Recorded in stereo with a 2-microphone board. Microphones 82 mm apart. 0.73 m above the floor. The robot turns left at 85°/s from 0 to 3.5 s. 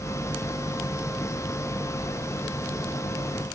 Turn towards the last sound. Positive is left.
No sound to turn to.